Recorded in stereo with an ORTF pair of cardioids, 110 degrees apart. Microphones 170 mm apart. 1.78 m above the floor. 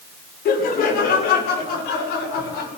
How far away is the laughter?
About 5 m.